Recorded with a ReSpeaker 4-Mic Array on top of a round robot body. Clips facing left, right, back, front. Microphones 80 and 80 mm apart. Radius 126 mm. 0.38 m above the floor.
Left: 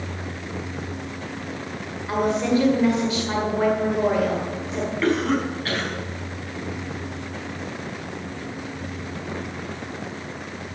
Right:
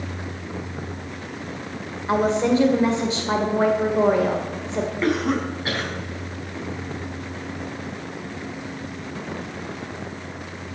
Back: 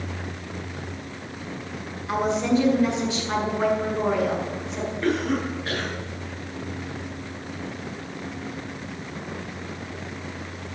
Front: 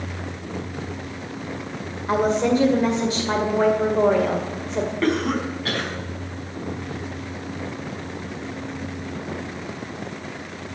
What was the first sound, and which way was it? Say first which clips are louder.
A woman speaking: right 2 dB, front 3 dB; 35° right.